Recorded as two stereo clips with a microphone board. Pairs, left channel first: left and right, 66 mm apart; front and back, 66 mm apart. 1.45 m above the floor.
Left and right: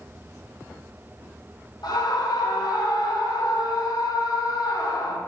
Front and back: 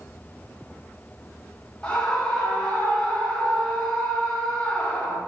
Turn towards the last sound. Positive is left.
turn(degrees=75)